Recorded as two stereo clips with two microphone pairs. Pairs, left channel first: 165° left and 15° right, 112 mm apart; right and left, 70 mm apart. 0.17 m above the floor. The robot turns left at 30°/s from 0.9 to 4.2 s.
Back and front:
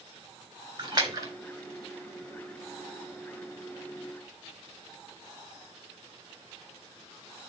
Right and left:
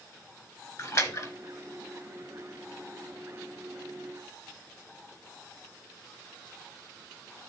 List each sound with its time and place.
0.8 s a splash: 60° right, 3 m; by 1.3 s 70° right, 3 m